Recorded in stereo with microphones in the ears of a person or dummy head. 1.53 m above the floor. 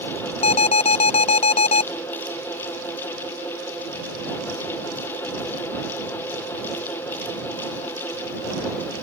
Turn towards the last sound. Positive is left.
turn(degrees=30)  # may be behind; listen again after turning